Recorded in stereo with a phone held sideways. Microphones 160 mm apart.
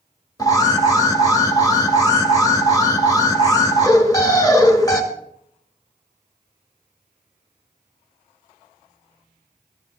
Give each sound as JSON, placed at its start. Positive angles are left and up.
{"t": 0.4, "sound": "an alarm", "side_deg": 25, "distance_m": 2.5}